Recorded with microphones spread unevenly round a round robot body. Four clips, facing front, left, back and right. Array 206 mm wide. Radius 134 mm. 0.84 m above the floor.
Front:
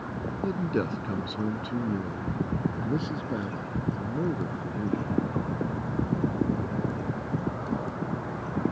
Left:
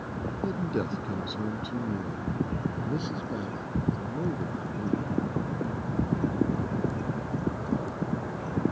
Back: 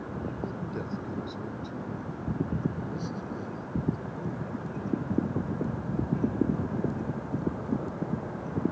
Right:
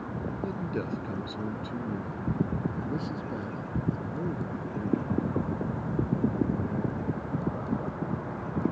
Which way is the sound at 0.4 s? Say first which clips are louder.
Left 5 dB, front 7 dB; 15° left.